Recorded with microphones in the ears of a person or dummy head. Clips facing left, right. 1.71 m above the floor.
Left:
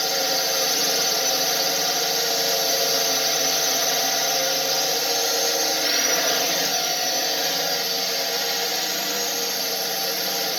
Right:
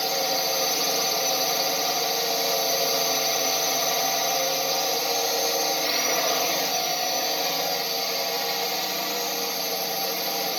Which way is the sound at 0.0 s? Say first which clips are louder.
Left 1 dB; 10° left (ahead or behind).